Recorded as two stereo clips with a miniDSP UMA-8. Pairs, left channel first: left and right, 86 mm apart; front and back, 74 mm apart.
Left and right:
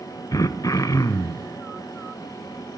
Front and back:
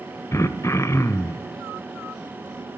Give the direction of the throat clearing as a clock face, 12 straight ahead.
10 o'clock.